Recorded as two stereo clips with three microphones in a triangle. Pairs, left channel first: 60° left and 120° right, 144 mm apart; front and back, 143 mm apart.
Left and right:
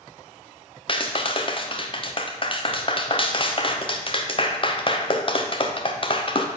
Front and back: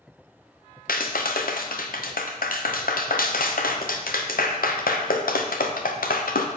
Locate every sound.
0.9 s a clap: 5° left, 0.6 m